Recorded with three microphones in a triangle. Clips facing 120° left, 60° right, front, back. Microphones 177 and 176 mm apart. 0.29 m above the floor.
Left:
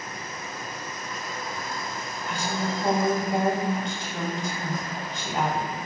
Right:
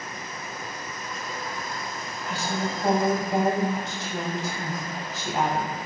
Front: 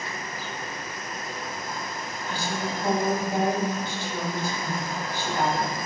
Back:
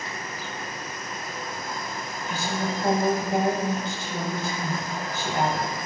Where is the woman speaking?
140° right, 1.2 m.